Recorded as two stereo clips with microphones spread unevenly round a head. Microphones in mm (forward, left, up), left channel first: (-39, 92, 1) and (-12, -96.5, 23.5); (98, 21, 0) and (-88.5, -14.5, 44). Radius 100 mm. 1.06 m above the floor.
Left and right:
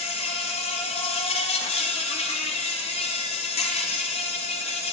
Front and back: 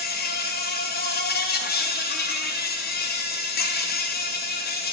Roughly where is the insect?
Ahead left.